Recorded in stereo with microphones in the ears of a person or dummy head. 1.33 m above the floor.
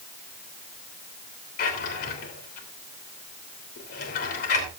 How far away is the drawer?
About 3 m.